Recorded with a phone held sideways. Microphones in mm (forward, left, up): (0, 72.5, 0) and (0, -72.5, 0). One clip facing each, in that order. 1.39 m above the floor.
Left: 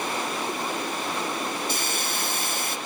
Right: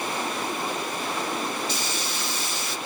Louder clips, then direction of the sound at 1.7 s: Left 1 dB; 55° left (ahead or behind).